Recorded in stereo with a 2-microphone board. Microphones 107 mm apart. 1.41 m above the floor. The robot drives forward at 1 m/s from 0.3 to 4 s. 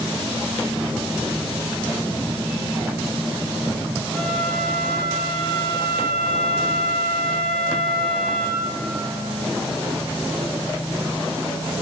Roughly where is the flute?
Centre.